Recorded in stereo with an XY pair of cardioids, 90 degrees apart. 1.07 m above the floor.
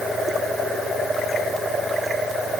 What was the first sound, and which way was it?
Only background noise.